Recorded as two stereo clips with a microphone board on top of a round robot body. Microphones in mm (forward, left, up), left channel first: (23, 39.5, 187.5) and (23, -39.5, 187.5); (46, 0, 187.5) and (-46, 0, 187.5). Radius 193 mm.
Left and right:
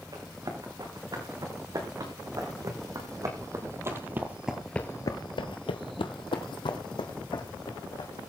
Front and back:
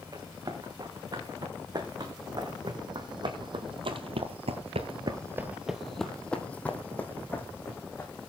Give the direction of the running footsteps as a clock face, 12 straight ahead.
4 o'clock.